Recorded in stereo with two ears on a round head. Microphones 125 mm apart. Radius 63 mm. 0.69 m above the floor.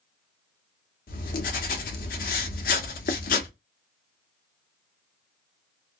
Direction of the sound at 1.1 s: 70° left (ahead or behind).